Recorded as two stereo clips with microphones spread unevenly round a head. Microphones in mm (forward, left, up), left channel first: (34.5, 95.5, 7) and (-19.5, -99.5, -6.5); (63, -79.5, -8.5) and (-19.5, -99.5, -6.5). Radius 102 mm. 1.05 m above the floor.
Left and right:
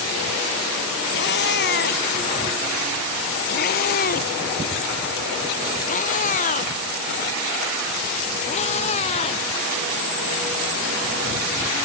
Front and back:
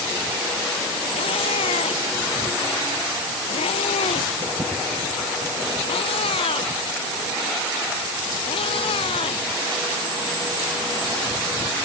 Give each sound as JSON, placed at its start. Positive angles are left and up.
{"t": 1.1, "sound": "a cat meowing", "azimuth_deg": 35}